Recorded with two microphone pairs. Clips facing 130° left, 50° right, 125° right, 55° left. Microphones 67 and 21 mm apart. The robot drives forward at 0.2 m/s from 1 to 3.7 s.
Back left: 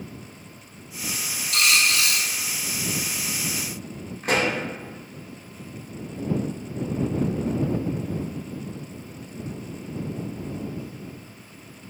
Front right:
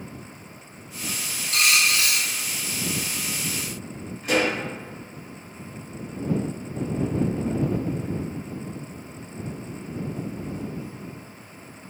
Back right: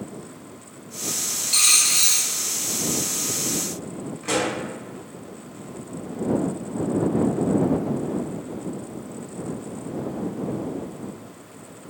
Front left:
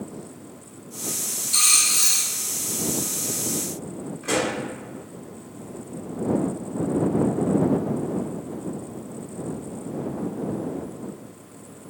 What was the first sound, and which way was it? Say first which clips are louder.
A dropped coin: even, back right 1 dB; 105° right.